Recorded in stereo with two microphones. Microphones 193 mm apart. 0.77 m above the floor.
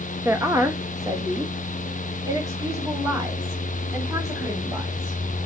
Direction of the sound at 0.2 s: 10° right (ahead or behind).